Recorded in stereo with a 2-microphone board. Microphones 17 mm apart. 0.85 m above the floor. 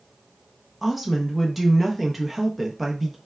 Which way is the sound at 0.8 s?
5° right (ahead or behind).